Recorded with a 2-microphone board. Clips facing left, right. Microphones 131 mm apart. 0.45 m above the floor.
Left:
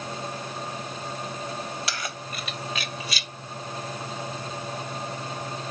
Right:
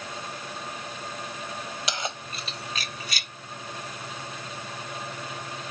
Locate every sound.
1.9 s keys jangling: 20° right (ahead or behind); by 3.3 s 55° right (ahead or behind)